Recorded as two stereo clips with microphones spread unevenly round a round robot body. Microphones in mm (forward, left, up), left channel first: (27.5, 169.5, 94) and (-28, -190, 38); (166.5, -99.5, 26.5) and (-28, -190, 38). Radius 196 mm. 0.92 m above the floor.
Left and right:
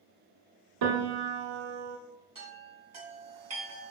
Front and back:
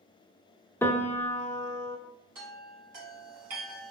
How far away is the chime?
About 2.5 m.